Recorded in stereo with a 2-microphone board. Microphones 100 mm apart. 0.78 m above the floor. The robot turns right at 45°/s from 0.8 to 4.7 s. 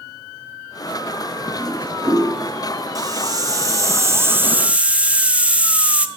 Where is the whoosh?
25° right (ahead or behind), 2.5 m; by 2.2 s 5° left (ahead or behind), 2.5 m.